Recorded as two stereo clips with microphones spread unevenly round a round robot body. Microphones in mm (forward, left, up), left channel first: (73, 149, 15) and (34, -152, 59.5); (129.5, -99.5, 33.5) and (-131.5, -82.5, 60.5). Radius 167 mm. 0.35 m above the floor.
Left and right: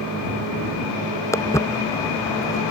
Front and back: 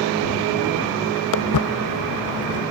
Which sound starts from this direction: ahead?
Footsteps, at 1.3 s.